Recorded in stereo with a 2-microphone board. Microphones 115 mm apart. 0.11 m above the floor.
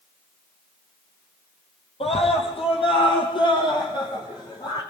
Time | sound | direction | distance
2.0 | a scream | 60° left (ahead or behind) | 4.5 m